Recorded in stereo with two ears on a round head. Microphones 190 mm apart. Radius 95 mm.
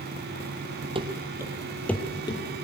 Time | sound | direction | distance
0.9 | running footsteps | 25° right (ahead or behind) | 2 m